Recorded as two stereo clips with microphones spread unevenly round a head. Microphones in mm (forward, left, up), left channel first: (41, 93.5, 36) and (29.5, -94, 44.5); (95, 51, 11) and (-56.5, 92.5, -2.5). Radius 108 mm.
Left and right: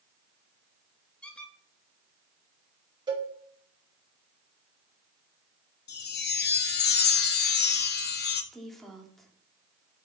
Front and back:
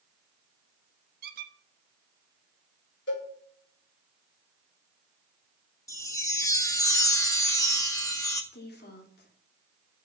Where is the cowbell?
25° right, 5.5 m.